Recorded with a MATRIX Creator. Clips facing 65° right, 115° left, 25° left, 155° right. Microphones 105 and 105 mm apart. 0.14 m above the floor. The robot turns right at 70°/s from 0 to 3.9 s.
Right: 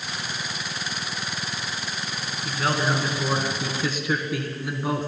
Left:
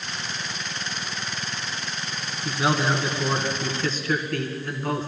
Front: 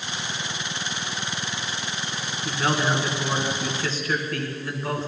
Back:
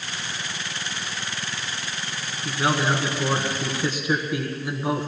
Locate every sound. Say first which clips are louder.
2.5 s a man speaking: left 2 dB, back 1 dB; 140° left, 1.5 m; by 5.1 s 115° right, 1.5 m